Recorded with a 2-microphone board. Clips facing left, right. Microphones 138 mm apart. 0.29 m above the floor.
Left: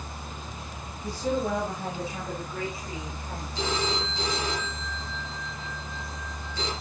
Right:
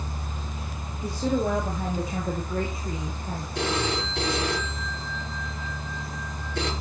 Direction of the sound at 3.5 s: 65° right (ahead or behind).